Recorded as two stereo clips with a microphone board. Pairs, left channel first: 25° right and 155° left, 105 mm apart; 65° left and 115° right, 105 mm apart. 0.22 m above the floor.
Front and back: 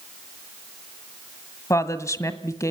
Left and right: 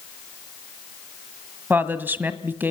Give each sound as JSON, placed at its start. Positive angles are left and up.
{"t": 1.7, "sound": "a woman speaking", "azimuth_deg": -55, "distance_m": 1.6}